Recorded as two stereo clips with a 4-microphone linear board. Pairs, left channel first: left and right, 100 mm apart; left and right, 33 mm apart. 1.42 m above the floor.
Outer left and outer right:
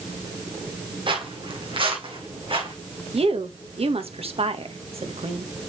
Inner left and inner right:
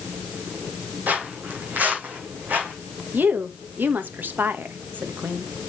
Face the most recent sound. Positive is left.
turn(degrees=-75)  # may be behind; listen again after turning